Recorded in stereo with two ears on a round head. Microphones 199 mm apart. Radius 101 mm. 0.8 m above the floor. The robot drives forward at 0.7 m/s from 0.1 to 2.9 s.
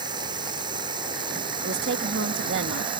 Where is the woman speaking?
45° right (ahead or behind); by 2.9 s 50° right (ahead or behind).